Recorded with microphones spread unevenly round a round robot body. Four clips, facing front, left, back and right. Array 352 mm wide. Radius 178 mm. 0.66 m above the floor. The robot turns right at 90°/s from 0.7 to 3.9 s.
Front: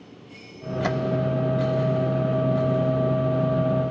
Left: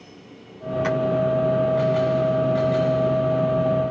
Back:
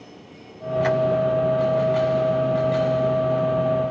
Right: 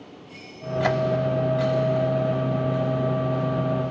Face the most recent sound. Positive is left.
turn(degrees=-105)